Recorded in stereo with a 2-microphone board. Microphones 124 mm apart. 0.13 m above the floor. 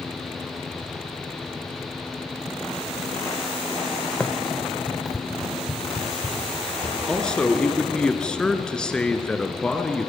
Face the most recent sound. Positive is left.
turn(degrees=5)  # may be behind; listen again after turning